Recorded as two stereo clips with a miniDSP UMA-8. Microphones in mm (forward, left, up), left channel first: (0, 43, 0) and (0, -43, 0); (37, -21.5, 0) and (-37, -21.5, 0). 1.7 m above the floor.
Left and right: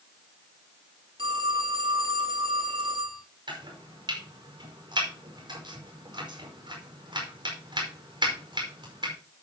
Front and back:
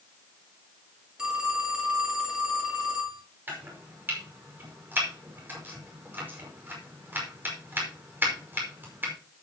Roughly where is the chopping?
Behind right.